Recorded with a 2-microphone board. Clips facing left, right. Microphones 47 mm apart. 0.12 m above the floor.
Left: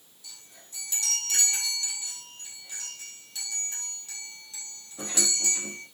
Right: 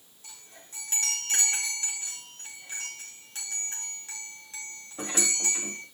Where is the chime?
45° right (ahead or behind), 4.5 m.